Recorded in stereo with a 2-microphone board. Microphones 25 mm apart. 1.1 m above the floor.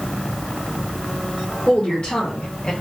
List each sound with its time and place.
1.7 s a woman speaking: 45° left (ahead or behind), 1.4 m; by 2.7 s 50° left (ahead or behind), 1.1 m